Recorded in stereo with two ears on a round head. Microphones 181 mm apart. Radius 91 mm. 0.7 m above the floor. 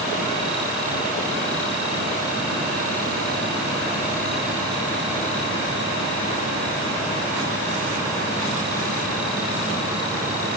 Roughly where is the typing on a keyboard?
No typing on a keyboard in this recording.